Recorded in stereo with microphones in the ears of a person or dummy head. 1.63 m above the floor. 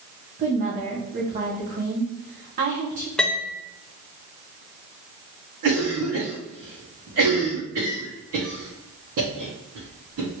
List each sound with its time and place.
0.4 s a woman speaking: 35° right (ahead or behind), 0.9 m
3.2 s a piano: 5° left (ahead or behind), 0.5 m
5.6 s a cough: 75° right (ahead or behind), 1.0 m